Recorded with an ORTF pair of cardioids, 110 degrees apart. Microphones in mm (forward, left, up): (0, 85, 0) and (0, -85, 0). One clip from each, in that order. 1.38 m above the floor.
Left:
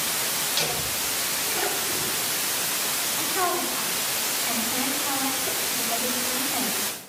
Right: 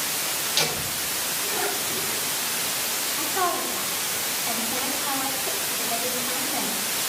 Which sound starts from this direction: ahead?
A woman speaking, at 3.2 s.